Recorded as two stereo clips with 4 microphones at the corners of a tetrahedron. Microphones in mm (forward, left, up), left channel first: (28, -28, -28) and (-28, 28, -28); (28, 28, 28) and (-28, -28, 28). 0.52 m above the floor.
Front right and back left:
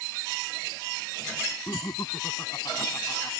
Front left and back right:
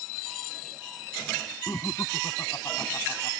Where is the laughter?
5° right.